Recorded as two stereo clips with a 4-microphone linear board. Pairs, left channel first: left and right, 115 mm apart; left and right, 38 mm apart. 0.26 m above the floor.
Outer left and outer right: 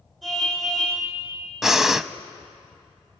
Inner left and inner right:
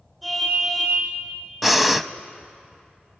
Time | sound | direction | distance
0.2 | a car horn | centre (ahead or behind) | 7 m
1.6 | breathing | 5° right (ahead or behind) | 0.6 m